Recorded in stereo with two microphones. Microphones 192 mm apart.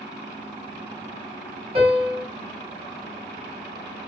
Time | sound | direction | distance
1.8 | a piano | 30° right (ahead or behind) | 1.1 m